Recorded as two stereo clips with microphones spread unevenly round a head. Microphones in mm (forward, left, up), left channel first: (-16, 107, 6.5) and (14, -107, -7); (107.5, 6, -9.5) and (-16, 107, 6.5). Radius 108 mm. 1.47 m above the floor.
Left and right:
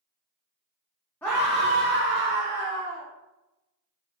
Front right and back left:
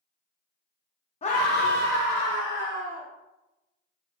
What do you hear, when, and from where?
1.2 s a scream: 15° left, 0.6 m; by 3.1 s 65° right, 1.8 m